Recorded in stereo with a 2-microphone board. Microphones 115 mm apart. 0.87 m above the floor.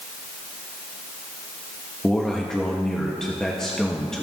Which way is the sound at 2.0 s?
5° left (ahead or behind).